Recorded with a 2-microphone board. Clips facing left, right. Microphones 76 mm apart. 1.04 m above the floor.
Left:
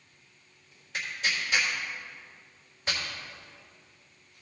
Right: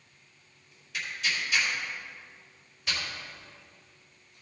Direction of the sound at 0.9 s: 35° left (ahead or behind).